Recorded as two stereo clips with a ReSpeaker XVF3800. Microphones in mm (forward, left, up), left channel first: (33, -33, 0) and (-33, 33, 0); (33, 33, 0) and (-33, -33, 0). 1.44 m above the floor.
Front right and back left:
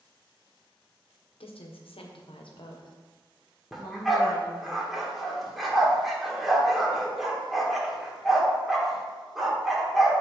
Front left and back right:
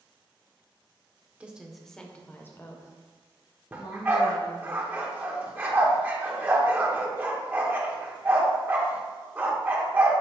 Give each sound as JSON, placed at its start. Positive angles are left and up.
{"t": 1.4, "sound": "a woman speaking", "azimuth_deg": -60, "distance_m": 0.9}
{"t": 3.7, "sound": "a dog barking", "azimuth_deg": -140, "distance_m": 1.1}